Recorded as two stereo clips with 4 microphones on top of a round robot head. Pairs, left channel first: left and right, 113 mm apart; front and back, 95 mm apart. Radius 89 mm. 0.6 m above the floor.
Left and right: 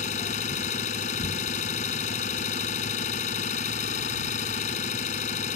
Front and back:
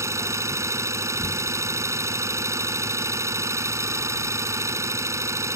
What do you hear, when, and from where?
0.0 s an engine running: 120° left